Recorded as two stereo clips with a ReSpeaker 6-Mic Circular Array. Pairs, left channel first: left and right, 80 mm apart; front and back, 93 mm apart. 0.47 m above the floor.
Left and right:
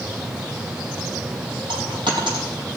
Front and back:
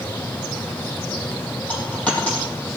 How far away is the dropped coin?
About 4 m.